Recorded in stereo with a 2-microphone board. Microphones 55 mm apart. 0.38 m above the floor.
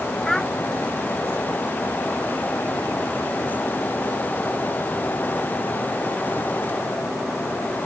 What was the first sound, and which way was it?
A child speaking, 10° left (ahead or behind).